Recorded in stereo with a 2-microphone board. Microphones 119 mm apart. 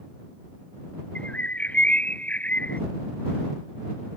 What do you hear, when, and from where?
1.1 s a bird: 15° left (ahead or behind)